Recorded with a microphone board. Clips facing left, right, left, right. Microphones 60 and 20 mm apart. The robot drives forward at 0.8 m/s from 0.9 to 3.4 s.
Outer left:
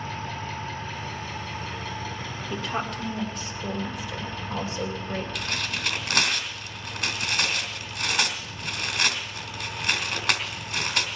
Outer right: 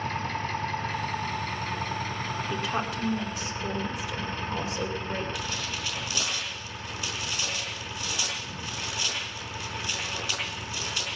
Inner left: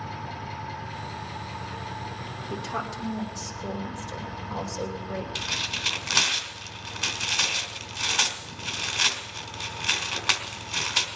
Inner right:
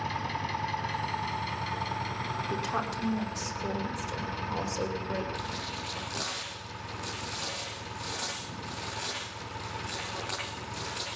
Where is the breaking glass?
No breaking glass in this recording.